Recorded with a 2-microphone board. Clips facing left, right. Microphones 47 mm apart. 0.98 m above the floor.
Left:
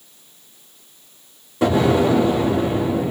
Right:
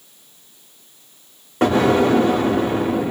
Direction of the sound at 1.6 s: 65° right (ahead or behind).